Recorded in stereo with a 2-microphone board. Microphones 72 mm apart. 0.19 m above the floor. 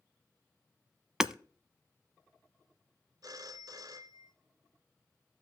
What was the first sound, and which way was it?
Hammering, 10° right (ahead or behind).